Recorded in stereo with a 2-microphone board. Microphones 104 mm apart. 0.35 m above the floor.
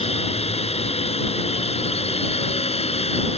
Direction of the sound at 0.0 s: 75° left (ahead or behind).